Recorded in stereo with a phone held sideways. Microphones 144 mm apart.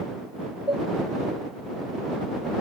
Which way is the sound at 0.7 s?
35° right (ahead or behind).